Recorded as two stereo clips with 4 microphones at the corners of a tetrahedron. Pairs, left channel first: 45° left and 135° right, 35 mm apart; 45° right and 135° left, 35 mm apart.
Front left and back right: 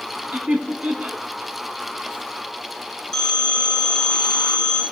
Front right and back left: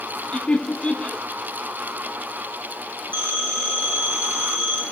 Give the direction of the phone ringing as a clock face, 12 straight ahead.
8 o'clock.